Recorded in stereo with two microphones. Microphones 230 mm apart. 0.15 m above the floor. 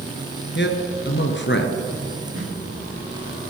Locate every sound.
0.6 s a man speaking: 50° left (ahead or behind), 2.5 m
2.4 s a snare drum: 60° right (ahead or behind), 6.5 m